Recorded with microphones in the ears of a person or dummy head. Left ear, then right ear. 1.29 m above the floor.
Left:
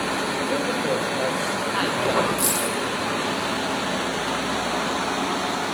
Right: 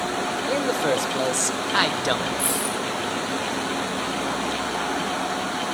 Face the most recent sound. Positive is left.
turn(degrees=75)  # may be behind; listen again after turning